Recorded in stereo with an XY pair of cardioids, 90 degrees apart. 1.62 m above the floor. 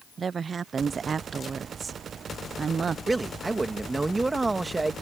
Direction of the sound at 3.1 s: 20° right.